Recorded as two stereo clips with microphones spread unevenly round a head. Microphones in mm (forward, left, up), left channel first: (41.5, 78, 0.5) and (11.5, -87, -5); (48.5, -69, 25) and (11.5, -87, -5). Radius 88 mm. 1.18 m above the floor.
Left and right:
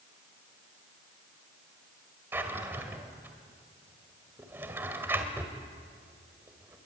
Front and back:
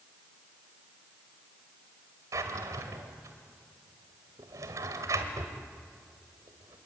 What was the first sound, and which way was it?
A drawer, straight behind.